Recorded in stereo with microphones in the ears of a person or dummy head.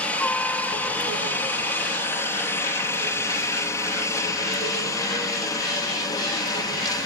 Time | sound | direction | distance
0.0 | a helicopter | 5° left (ahead or behind) | ?